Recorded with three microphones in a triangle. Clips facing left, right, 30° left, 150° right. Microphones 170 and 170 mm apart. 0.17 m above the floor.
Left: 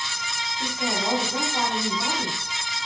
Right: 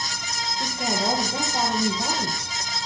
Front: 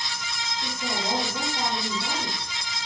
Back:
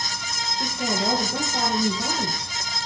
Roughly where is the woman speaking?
Behind.